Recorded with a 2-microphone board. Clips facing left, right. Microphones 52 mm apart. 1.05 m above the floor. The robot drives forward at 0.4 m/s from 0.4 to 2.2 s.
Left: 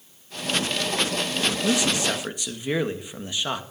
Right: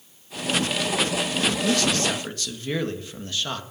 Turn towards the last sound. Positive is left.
turn(degrees=15)  # may be behind; listen again after turning